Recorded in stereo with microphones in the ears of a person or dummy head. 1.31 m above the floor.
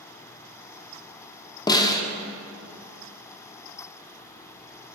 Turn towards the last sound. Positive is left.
turn(degrees=30)  # may be behind; listen again after turning